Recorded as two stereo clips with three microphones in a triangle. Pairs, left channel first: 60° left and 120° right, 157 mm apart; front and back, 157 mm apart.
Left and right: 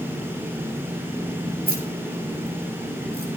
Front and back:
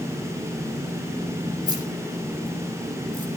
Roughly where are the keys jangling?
Behind right.